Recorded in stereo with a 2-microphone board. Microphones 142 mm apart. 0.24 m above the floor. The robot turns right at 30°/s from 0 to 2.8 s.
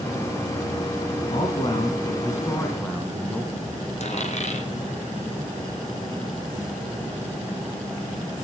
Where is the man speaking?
125° left, 2 m; by 3.8 s 170° left, 2 m.